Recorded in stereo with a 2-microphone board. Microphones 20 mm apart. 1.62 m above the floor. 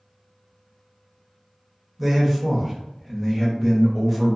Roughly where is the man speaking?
Centre.